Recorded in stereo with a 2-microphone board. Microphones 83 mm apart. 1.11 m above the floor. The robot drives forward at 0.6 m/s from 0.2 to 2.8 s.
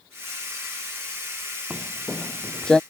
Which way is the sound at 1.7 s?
15° right (ahead or behind).